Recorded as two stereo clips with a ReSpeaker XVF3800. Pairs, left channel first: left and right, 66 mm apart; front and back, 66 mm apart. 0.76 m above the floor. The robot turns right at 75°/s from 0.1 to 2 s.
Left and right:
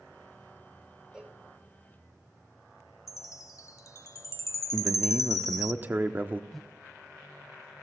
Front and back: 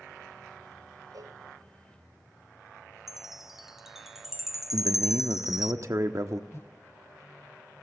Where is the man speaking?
150° right, 1.2 m.